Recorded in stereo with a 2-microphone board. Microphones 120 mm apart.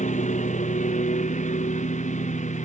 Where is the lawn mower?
85° left.